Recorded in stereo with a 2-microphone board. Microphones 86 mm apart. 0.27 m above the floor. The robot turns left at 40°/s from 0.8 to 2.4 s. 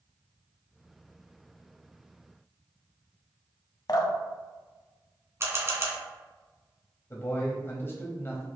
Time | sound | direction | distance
3.9 | dripping | 55° left (ahead or behind) | 0.8 m
5.4 | a camera shutter | 35° right (ahead or behind) | 1.0 m
7.1 | a man speaking | 30° left (ahead or behind) | 1.0 m